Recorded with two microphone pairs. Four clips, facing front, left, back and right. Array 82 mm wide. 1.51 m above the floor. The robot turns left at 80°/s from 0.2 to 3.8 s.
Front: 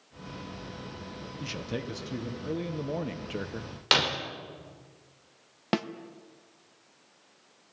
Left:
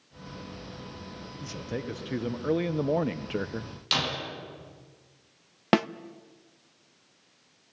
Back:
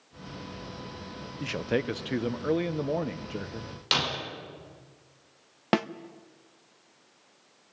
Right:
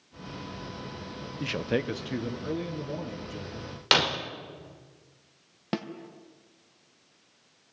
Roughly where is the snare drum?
Behind left.